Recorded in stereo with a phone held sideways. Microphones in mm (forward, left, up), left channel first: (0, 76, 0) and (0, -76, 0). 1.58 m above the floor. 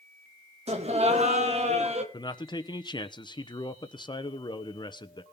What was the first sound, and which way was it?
Laughter, 45° right (ahead or behind).